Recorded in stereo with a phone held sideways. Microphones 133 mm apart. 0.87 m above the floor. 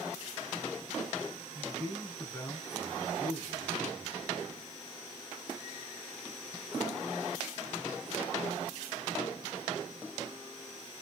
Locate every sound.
1.6 s a man speaking: 10° left (ahead or behind), 7 m